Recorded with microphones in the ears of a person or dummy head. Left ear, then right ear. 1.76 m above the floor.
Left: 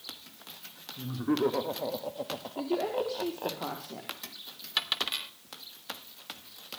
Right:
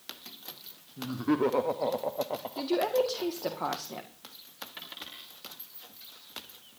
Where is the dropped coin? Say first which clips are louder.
Left 15 dB; 60° left (ahead or behind), 2.5 m.